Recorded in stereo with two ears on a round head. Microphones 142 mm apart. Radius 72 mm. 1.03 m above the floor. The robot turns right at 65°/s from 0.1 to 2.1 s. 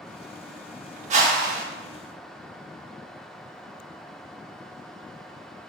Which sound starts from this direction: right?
A whoosh, at 1.1 s.